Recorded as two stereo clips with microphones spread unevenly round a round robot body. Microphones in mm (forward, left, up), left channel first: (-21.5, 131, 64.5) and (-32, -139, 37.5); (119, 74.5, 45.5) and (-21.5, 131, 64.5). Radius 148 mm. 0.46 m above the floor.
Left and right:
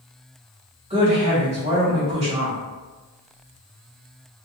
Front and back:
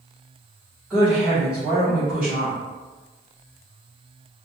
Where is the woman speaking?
110° right, 1.0 m.